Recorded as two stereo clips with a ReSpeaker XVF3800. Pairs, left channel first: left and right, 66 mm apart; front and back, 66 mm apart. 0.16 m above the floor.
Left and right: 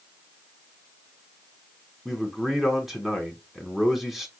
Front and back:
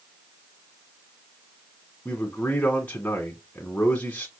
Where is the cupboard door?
No cupboard door in this recording.